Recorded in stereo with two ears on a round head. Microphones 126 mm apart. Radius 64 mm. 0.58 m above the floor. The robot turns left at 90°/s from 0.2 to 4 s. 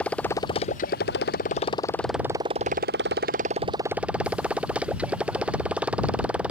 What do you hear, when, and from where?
0.0 s a motorcycle: 170° left; by 6.5 s 170° right